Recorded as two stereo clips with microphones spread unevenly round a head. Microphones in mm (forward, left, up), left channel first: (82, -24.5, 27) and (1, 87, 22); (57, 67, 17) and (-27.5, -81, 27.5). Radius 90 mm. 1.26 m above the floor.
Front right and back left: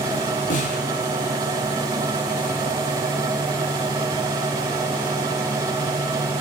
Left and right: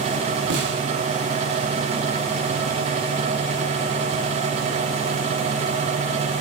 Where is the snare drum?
100° right, 3.5 m.